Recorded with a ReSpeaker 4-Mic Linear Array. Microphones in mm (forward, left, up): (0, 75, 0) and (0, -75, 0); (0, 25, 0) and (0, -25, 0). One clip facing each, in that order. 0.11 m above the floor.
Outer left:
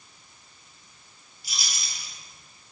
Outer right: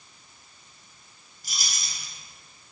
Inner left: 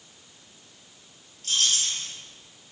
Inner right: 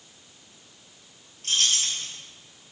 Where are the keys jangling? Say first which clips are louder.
Even, inner right 1 dB; 50° right (ahead or behind), 1.3 m.